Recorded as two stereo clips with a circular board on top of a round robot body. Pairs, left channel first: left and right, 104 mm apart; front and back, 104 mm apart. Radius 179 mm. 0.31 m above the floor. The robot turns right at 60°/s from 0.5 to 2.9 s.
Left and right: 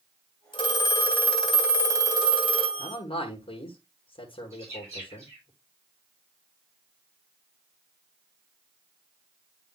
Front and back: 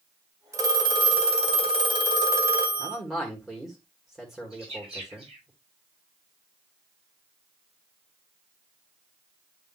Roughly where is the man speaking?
Left.